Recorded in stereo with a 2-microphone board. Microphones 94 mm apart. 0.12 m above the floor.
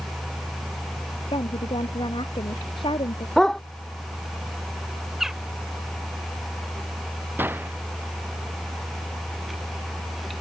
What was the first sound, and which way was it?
A woman speaking, 65° left (ahead or behind).